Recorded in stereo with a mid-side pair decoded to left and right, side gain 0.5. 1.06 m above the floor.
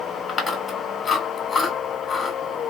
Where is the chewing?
35° left, 1.5 m.